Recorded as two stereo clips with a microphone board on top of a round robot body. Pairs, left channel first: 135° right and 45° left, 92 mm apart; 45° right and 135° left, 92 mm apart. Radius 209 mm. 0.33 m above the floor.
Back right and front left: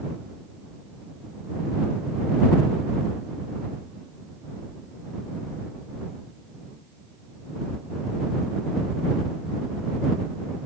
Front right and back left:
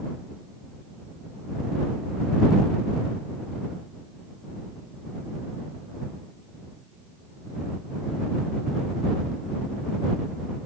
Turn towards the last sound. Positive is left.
No sound to turn to.